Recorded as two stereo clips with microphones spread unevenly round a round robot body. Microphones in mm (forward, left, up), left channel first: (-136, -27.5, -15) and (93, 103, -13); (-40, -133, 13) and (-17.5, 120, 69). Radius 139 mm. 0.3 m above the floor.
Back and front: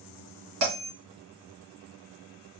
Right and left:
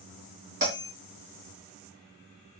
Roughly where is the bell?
Ahead.